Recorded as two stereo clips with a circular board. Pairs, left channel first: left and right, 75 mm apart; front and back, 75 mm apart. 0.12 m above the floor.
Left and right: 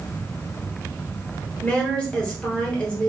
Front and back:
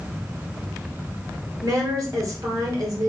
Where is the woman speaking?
160° left, 2.5 m.